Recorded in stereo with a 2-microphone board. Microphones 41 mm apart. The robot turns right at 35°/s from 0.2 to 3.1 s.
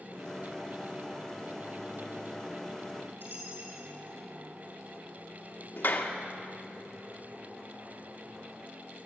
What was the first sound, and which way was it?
A dropped coin, 55° right (ahead or behind).